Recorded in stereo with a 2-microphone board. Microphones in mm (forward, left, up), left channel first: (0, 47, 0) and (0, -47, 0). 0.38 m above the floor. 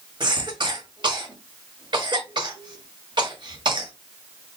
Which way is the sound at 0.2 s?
55° right (ahead or behind).